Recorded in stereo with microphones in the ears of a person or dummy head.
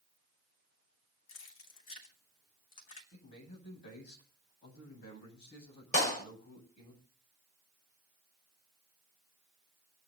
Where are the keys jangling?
40° left (ahead or behind), 3.5 m.